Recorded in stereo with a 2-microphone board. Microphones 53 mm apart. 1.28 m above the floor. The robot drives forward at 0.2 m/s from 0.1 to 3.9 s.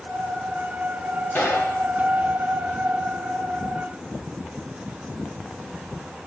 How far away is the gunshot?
About 1.3 m.